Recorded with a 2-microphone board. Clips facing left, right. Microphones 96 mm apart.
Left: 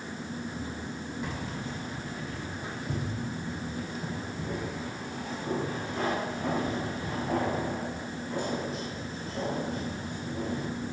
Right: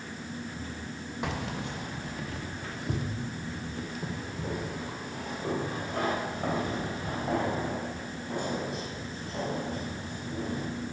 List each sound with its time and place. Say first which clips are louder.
1.2 s keys jangling: right 6 dB; 75° right (ahead or behind), 0.5 m; by 10.7 s 65° right (ahead or behind), 5.5 m